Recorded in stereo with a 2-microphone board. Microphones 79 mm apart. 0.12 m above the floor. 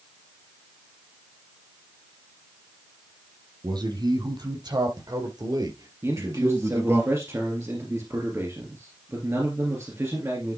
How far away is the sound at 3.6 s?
About 4 m.